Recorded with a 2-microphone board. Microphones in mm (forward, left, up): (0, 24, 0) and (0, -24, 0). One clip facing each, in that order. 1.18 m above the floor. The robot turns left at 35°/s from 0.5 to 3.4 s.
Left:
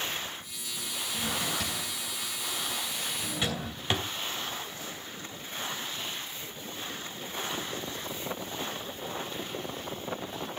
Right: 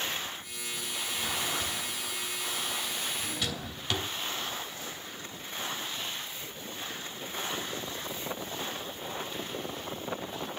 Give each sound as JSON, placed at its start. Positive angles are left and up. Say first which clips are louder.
{"t": 1.1, "sound": "a drawer", "louder": "left 1 dB", "side_deg": 70, "distance_m": 2.5}